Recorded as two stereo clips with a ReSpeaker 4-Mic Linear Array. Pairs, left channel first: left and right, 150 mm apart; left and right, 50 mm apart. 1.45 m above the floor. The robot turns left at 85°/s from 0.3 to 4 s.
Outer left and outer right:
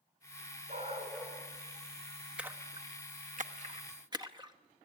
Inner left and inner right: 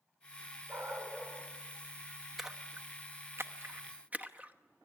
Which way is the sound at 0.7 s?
115° right.